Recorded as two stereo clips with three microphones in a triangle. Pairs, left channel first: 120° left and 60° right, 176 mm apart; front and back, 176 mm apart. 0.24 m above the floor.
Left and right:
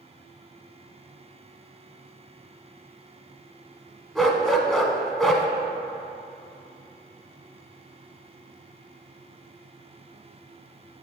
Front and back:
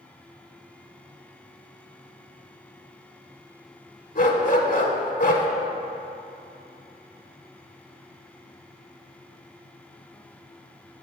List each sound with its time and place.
4.2 s a dog barking: 30° left, 0.6 m